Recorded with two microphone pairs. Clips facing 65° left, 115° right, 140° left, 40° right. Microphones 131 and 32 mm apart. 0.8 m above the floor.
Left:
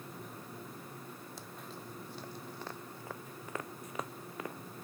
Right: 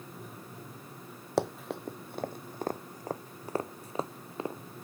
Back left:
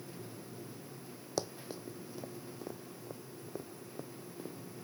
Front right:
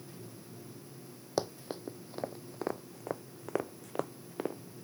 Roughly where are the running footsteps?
Right.